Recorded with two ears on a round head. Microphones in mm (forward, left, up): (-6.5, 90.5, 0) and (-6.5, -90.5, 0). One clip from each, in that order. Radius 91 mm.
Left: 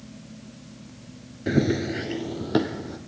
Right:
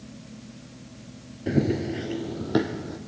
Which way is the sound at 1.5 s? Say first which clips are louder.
Left 2 dB; 25° left (ahead or behind).